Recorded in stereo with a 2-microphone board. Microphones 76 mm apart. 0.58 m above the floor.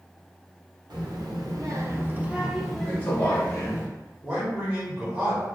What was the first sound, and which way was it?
A child speaking, 75° right (ahead or behind).